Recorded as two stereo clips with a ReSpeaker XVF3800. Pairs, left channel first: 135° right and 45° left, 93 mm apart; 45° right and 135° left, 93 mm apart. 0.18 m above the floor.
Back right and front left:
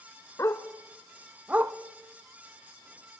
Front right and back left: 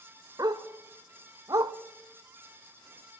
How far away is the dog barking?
About 1.0 m.